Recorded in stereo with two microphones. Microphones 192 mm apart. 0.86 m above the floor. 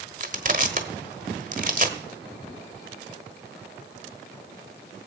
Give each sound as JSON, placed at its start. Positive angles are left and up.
{"t": 0.2, "sound": "crushing", "side_deg": -40, "distance_m": 1.2}